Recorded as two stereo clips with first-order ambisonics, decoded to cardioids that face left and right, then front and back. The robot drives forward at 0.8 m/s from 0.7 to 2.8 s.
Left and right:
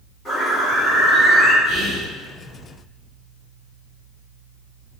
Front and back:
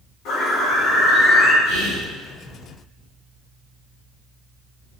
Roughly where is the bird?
Ahead.